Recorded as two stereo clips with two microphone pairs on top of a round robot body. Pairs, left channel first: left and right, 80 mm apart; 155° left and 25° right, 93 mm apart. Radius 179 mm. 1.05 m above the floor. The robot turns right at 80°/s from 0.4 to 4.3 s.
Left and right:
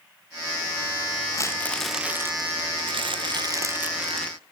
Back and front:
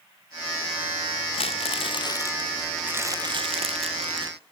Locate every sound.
1.3 s crumpling: 140° left, 0.8 m; by 4.4 s 15° left, 0.8 m